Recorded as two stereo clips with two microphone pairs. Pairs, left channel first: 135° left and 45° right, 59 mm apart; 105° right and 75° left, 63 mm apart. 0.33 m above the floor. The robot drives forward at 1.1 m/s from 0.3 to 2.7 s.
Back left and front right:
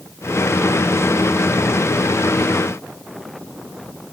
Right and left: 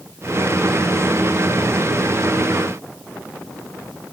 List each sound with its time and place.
Only background noise.